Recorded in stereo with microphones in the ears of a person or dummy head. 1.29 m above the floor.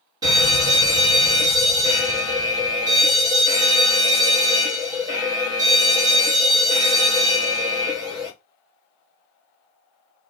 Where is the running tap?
No running tap in this recording.